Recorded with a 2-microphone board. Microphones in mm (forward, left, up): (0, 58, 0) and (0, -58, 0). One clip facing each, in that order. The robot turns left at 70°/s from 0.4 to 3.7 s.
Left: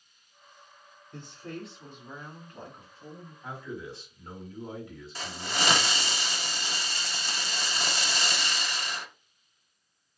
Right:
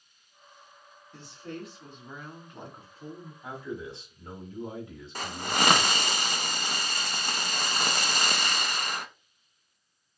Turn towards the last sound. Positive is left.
turn(degrees=-50)  # may be behind; listen again after turning